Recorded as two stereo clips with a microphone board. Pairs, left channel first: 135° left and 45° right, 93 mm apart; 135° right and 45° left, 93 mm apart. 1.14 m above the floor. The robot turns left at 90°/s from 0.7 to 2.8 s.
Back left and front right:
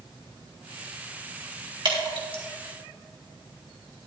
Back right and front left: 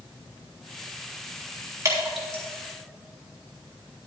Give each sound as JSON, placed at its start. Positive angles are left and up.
{"t": 1.9, "sound": "dripping", "azimuth_deg": -10, "distance_m": 3.0}